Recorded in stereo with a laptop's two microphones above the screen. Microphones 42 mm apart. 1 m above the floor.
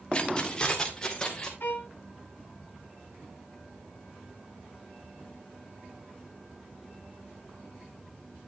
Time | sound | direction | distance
0.1 | keys jangling | 30° left (ahead or behind) | 1.4 m
1.6 | a violin | 65° left (ahead or behind) | 2.5 m